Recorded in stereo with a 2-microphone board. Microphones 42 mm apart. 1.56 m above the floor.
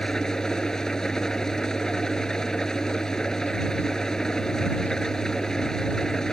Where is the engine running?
15° left (ahead or behind).